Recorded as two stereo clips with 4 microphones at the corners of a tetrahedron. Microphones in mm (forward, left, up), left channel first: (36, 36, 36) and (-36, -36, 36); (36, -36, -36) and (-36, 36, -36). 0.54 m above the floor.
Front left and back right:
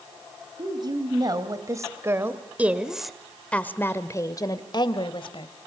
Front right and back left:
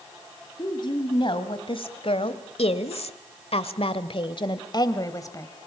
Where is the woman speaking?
90° right, 3 m; by 5.5 s 15° left, 2.5 m.